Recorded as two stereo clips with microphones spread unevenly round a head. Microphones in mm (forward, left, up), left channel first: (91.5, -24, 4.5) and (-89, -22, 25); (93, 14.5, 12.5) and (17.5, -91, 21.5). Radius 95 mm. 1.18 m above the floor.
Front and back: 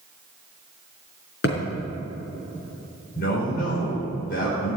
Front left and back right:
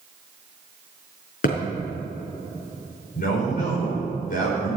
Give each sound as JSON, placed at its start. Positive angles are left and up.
{"t": 1.4, "sound": "a thud", "azimuth_deg": 40, "distance_m": 4.5}
{"t": 3.1, "sound": "a man speaking", "azimuth_deg": 45, "distance_m": 4.0}